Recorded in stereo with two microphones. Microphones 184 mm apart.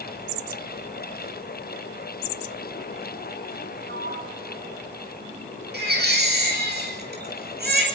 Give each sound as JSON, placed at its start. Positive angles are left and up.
{"t": 3.9, "sound": "a sliding door", "side_deg": -70, "distance_m": 6.0}
{"t": 5.7, "sound": "a baby crying", "side_deg": -60, "distance_m": 8.0}